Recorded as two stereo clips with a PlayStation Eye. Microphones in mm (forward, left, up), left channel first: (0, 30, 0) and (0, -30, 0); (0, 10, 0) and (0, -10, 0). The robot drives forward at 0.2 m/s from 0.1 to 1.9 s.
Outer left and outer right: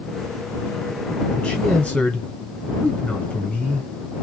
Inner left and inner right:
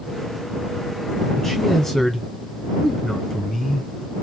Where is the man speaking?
25° left (ahead or behind), 1.3 m.